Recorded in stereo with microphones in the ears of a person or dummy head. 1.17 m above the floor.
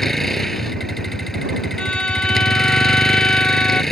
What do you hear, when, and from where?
0.0 s a vehicle: 5° left (ahead or behind)
1.8 s a violin: 10° left (ahead or behind)